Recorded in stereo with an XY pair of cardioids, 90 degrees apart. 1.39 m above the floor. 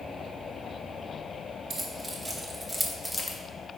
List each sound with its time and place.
1.7 s keys jangling: 35° right, 1.7 m; by 3.4 s 45° left, 0.8 m